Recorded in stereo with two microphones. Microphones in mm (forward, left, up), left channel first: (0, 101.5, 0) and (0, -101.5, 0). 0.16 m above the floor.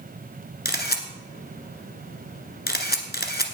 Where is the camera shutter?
55° left (ahead or behind), 1.4 m.